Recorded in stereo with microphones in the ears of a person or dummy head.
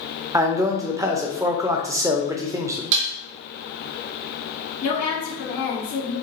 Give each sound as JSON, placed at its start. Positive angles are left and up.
{"t": 0.3, "sound": "a man speaking", "side_deg": -20, "distance_m": 0.6}
{"t": 2.9, "sound": "dishes clattering", "side_deg": -60, "distance_m": 0.7}
{"t": 4.8, "sound": "a woman speaking", "side_deg": 50, "distance_m": 2.0}